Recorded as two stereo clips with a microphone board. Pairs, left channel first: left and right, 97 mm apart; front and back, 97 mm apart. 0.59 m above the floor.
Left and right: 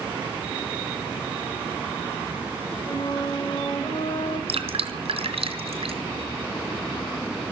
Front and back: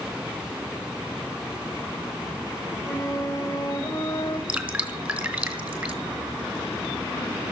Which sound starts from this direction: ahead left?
A flute, at 2.9 s.